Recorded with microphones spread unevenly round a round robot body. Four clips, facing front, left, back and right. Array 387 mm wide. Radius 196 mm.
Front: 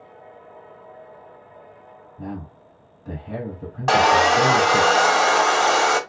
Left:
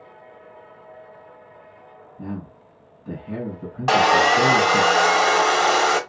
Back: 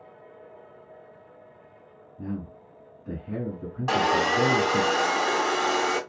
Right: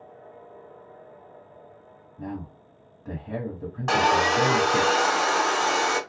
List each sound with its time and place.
2.2 s a man speaking: 30° right, 1.5 m
3.9 s sawing: 20° left, 0.8 m